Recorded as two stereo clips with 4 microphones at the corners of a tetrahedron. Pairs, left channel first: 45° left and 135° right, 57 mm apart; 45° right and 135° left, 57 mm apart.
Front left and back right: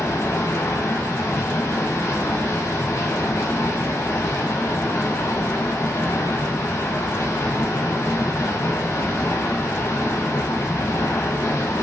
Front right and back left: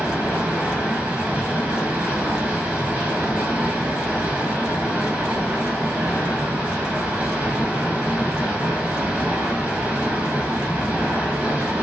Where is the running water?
70° left, 0.8 m.